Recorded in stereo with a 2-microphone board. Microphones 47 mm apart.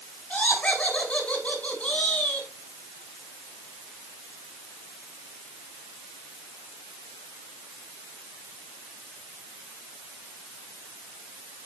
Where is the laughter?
30° left (ahead or behind), 5.5 m.